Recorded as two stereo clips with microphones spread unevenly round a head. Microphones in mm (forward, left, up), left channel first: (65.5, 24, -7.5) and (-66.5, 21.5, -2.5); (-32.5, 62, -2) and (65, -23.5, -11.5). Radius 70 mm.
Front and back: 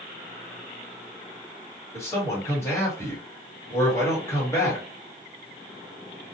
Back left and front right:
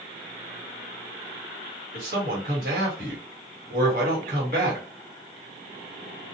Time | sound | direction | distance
1.9 | a man speaking | 75° right | 1.5 m